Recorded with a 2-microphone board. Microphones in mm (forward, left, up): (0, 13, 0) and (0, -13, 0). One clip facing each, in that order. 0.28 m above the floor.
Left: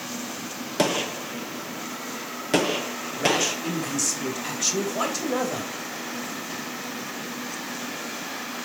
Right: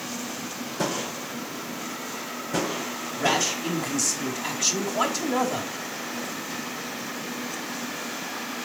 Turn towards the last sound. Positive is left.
turn(degrees=0)  # may be behind; listen again after turning